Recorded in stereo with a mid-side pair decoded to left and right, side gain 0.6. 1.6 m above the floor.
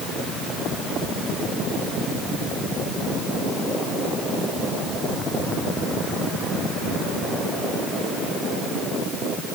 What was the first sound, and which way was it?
Only background noise.